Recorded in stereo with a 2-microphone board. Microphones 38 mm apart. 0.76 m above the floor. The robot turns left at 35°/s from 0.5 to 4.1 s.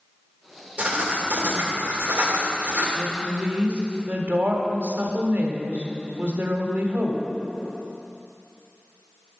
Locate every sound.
0.8 s writing: 40° right, 2.5 m; by 2.9 s 110° right, 2.5 m
3.0 s a woman speaking: 5° right, 1.8 m; by 7.3 s 45° right, 1.8 m